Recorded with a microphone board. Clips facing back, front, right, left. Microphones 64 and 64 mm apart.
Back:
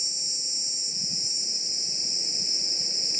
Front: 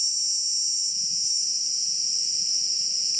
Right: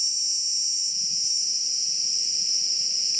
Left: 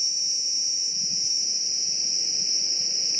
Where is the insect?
150° left.